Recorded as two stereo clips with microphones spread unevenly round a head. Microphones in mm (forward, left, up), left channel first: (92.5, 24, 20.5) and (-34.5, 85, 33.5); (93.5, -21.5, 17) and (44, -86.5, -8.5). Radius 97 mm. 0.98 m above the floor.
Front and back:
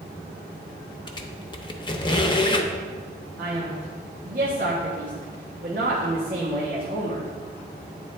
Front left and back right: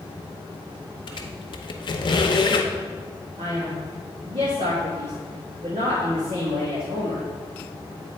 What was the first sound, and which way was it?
A squeak, 35° left.